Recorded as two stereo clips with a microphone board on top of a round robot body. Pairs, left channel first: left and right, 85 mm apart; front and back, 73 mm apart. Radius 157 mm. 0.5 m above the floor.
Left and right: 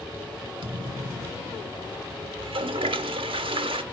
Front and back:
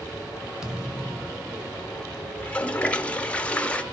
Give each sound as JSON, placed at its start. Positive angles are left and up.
{"t": 0.6, "sound": "a thud", "azimuth_deg": -100, "distance_m": 1.4}
{"t": 2.4, "sound": "a toilet flushing", "azimuth_deg": -75, "distance_m": 0.7}